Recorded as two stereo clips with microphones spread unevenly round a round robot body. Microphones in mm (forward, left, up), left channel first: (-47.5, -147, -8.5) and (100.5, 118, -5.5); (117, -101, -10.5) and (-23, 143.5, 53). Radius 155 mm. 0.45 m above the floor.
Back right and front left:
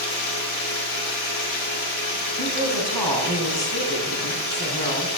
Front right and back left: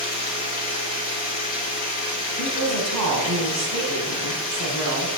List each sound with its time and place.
0.0 s running water: 125° right, 3.5 m
2.4 s a woman speaking: 160° left, 3 m